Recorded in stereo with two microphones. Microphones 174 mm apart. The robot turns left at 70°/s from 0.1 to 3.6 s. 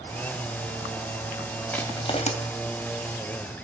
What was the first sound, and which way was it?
Crushing, 10° left (ahead or behind).